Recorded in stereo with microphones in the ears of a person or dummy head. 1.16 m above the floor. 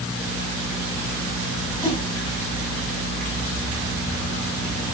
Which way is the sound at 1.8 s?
15° left (ahead or behind).